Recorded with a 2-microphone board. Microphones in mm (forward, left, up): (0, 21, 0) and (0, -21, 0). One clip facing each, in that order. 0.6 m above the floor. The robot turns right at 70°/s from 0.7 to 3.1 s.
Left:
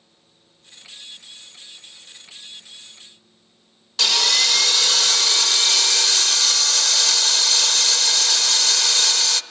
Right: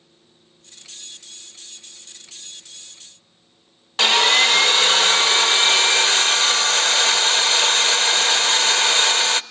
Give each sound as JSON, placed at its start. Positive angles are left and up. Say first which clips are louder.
{"t": 4.0, "sound": "sawing", "louder": "right 5 dB", "side_deg": -35, "distance_m": 0.6}